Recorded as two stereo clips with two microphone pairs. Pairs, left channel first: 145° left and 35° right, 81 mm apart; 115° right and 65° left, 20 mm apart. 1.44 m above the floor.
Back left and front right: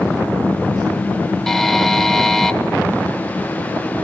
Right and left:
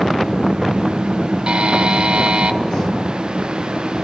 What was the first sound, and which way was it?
A buzzer, 60° left.